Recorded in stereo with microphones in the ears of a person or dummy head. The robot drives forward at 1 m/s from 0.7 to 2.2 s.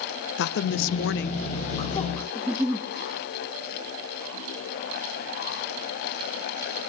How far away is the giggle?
About 0.6 m.